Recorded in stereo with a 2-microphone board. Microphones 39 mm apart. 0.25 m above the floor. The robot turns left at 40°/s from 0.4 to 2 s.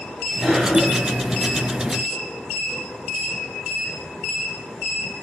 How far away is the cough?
About 1.3 m.